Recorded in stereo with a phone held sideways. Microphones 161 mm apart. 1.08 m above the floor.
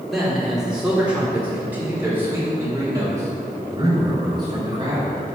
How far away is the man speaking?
About 3.5 m.